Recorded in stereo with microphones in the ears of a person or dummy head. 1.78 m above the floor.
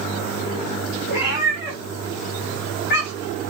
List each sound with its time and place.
1.1 s a cat meowing: 65° left (ahead or behind), 5 m; by 3.4 s 60° left (ahead or behind), 3 m